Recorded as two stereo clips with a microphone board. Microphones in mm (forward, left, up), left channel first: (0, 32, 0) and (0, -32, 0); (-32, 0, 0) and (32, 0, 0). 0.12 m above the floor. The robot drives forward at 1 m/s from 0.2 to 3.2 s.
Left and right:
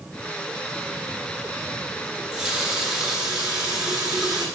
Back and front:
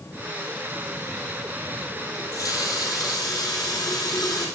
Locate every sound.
2.1 s a running tap: 165° right, 2 m; by 4.5 s 170° right, 3 m